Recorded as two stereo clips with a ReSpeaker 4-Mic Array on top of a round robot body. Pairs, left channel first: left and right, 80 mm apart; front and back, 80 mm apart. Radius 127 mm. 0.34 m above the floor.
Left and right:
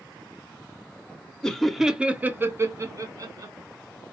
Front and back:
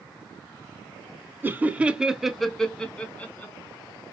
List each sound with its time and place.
1.4 s laughter: 160° left, 0.9 m; by 3.5 s 65° right, 1.3 m